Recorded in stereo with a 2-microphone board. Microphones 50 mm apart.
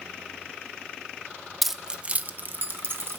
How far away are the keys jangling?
About 0.6 m.